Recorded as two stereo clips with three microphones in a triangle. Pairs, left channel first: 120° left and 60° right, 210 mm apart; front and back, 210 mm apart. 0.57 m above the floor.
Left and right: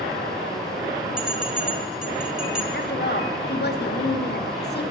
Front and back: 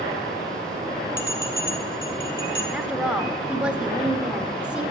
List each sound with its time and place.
1.2 s a bell: 25° left, 3 m
2.7 s a woman speaking: 95° left, 1.4 m